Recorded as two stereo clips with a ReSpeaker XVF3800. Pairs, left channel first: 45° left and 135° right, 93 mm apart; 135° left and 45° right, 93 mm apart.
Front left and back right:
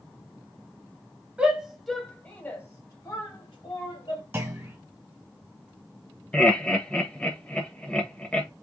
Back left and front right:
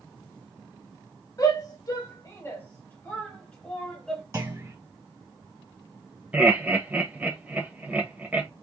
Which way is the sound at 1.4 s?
150° left.